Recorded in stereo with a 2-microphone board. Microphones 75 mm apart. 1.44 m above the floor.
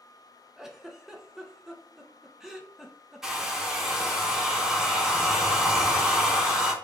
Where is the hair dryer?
5° right (ahead or behind), 1.0 m.